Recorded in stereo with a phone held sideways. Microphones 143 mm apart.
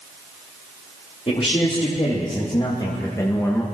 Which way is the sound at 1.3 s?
45° left (ahead or behind).